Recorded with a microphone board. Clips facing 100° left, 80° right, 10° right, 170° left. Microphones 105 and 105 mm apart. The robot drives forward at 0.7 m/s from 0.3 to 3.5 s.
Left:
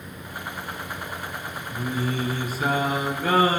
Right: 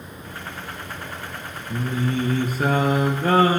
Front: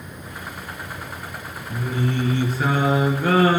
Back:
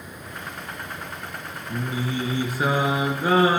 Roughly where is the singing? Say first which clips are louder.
Right 3 dB, front 3 dB; right.